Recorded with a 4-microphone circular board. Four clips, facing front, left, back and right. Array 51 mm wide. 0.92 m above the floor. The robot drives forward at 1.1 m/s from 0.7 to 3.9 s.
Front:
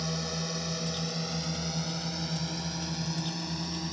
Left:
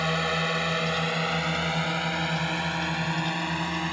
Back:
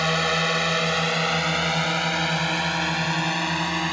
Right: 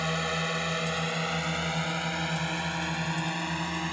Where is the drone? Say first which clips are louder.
Left 4 dB, back 13 dB; 170° left; by 4.0 s 175° left.